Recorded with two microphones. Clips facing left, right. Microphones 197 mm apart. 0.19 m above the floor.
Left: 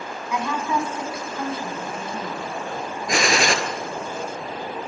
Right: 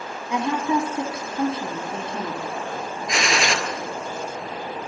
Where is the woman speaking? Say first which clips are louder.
Right 3 dB; 30° right (ahead or behind), 1.1 m.